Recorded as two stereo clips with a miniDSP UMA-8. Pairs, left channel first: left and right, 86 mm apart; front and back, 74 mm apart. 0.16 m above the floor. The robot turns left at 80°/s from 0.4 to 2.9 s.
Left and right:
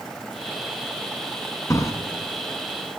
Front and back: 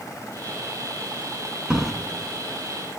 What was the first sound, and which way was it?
A drawer, 105° left.